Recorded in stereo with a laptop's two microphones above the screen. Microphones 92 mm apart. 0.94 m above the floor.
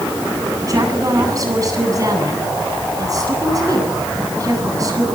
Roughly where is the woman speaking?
Right.